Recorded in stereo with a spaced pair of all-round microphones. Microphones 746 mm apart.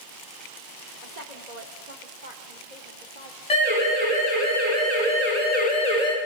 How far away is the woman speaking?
About 3.5 m.